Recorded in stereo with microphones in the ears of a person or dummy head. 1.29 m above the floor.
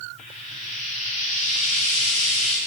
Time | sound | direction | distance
0.2 | frying | 40° left (ahead or behind) | 4 m